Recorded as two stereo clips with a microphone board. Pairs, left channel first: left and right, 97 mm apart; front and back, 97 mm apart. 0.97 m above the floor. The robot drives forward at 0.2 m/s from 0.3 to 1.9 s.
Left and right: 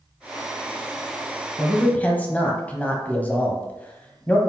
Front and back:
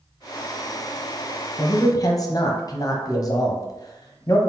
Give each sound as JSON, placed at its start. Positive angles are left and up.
{"t": 1.6, "sound": "a man speaking", "azimuth_deg": 20, "distance_m": 0.7}